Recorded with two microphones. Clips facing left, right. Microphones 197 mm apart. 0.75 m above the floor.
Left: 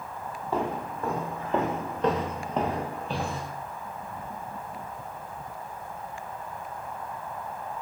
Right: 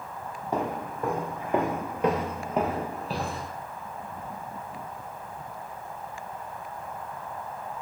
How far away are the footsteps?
About 1.1 m.